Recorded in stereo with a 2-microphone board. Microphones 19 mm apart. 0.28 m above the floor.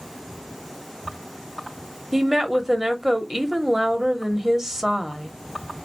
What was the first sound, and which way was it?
A woman speaking, 20° right (ahead or behind).